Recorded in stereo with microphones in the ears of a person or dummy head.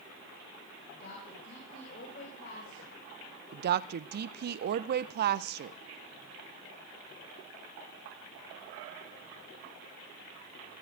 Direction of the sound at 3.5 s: 55° right (ahead or behind).